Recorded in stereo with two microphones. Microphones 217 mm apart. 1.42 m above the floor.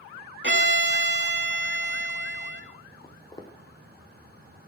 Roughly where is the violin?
Right.